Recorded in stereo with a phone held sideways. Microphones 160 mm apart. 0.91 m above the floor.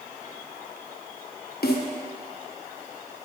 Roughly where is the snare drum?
Left.